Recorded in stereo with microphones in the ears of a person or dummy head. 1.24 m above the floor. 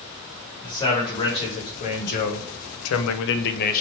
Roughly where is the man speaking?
Left.